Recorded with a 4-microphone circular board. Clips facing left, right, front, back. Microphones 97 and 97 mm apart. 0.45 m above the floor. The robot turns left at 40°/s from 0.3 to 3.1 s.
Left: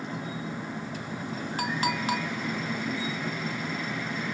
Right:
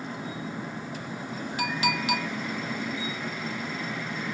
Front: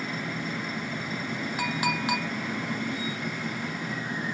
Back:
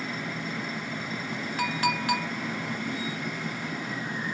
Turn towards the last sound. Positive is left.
turn(degrees=20)